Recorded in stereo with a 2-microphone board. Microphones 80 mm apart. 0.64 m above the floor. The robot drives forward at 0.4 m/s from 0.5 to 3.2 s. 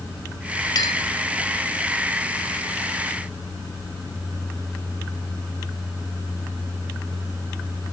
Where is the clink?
55° left (ahead or behind), 1.4 m; by 1.0 s 50° left (ahead or behind), 1.5 m.